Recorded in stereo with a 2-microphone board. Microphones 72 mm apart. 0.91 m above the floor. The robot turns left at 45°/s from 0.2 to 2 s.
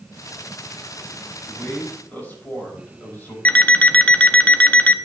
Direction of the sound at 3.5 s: 20° left (ahead or behind).